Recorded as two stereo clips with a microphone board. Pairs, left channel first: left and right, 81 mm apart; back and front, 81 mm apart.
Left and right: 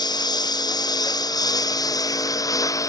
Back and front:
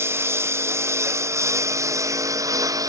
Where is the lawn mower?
60° left; by 2.9 s 45° left.